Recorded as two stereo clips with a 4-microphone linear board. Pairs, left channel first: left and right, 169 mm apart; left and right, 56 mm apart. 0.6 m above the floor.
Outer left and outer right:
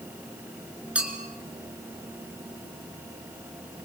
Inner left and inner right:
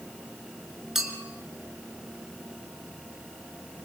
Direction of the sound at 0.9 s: 5° right (ahead or behind).